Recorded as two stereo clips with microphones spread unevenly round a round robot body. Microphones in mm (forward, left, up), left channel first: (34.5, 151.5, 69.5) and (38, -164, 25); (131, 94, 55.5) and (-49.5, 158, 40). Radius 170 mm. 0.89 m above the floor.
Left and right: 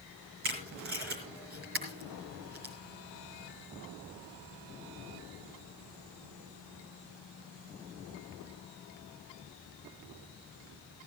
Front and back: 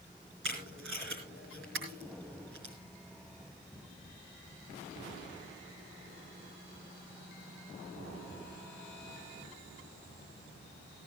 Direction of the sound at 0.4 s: 150° right.